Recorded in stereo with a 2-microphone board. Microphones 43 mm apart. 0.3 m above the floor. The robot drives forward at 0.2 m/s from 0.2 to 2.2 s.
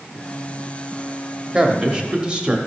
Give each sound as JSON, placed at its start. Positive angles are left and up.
{"t": 1.5, "sound": "a man speaking", "side_deg": -20, "distance_m": 0.9}